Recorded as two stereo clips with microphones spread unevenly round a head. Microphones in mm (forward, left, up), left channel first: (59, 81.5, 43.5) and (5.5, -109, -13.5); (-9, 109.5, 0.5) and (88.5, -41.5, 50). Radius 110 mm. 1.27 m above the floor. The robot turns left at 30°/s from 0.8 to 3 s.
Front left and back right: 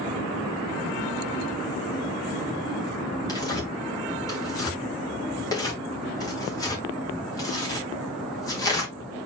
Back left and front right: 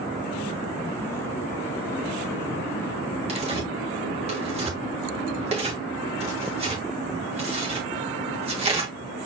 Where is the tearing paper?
Straight ahead, 2.5 m.